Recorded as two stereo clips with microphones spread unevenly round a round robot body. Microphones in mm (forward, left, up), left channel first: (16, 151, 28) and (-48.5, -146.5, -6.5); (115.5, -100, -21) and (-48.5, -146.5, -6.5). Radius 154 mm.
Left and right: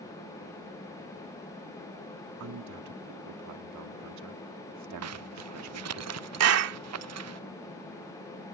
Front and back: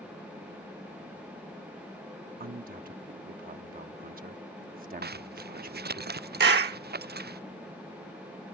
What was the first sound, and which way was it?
A man speaking, 130° right.